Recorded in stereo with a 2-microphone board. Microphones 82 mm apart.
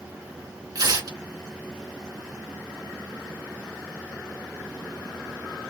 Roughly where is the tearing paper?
Right.